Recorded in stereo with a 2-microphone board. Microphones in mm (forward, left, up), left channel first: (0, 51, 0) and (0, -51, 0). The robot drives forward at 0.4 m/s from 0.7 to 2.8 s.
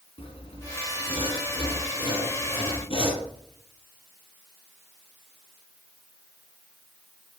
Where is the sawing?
60° left (ahead or behind), 2 m; by 3.3 s 55° left (ahead or behind), 2 m.